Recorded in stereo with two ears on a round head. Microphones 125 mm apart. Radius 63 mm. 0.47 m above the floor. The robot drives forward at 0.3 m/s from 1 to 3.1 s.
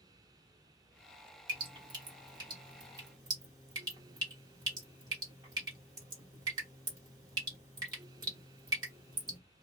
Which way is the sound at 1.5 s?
35° right (ahead or behind).